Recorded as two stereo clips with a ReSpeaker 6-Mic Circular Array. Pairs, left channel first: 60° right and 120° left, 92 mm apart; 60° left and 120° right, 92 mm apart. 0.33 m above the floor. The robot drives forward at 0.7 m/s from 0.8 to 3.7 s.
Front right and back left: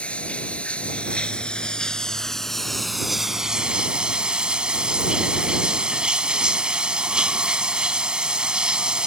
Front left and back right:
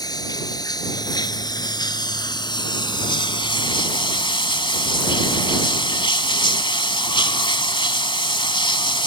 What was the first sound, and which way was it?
Running water, 15° left.